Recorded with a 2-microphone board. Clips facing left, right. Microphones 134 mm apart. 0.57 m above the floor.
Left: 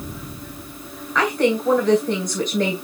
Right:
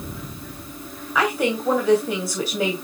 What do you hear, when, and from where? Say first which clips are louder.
1.1 s a woman speaking: left 3 dB; 5° right (ahead or behind), 2.5 m